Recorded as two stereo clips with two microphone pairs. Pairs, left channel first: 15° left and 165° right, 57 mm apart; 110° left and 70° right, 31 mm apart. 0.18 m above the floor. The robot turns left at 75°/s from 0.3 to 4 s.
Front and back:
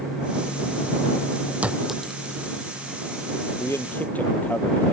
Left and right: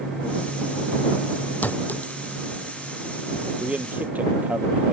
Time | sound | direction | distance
1.6 | a clink | 130° left | ?
3.6 | a man speaking | 15° right | ?